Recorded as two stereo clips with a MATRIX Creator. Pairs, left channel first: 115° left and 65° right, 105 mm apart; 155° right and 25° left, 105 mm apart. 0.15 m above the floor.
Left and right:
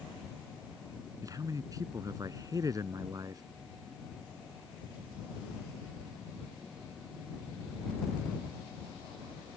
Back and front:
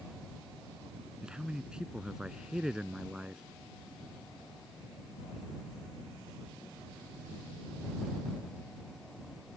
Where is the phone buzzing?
No phone buzzing in this recording.